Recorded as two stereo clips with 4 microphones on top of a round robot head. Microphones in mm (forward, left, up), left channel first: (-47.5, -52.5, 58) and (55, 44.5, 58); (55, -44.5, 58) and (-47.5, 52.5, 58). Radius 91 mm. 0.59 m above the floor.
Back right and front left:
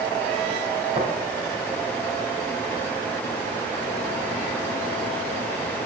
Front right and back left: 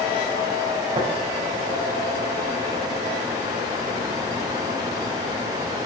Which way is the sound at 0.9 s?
85° left.